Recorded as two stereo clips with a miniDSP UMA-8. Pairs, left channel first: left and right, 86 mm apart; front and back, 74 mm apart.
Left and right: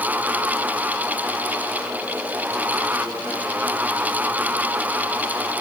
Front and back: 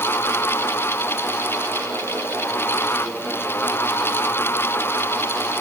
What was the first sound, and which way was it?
Only background noise.